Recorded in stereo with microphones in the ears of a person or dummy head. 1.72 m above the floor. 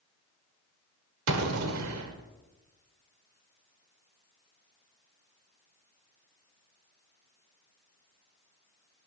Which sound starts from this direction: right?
An explosion, at 1.3 s.